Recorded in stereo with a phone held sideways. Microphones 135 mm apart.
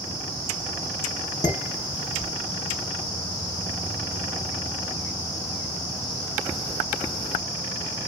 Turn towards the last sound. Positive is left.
turn(degrees=55)  # may be behind; listen again after turning